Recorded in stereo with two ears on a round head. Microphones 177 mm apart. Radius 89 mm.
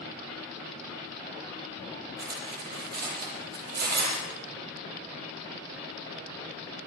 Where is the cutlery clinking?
55° right (ahead or behind), 8 m.